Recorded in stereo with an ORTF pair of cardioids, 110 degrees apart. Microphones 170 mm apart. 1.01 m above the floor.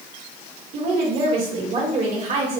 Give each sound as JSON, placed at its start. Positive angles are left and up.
{"t": 0.7, "sound": "a woman speaking", "azimuth_deg": -55, "distance_m": 1.7}